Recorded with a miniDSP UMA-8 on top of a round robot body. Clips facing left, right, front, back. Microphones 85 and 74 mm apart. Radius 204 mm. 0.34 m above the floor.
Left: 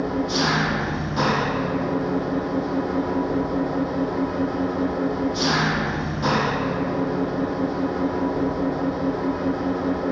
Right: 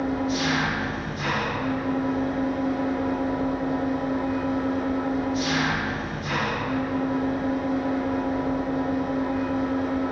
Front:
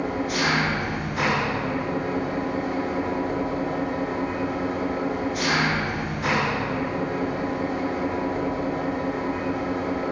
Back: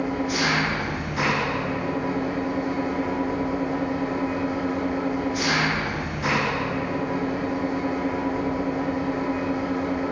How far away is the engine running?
About 8.5 m.